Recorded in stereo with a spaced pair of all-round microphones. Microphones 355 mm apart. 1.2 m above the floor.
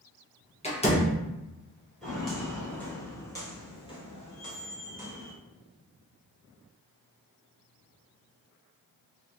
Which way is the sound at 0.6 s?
20° left (ahead or behind).